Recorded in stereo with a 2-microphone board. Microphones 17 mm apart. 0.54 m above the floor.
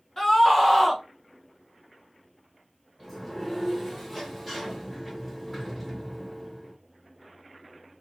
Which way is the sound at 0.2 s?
20° left (ahead or behind).